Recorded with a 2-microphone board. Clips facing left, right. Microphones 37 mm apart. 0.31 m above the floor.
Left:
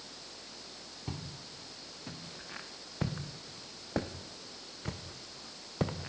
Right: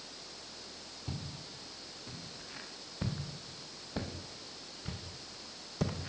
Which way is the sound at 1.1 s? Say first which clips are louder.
Even; 50° left (ahead or behind).